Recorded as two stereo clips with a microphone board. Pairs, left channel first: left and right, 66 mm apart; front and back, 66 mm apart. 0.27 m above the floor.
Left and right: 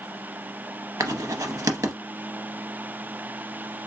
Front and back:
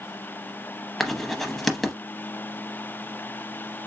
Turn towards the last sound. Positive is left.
turn(degrees=-85)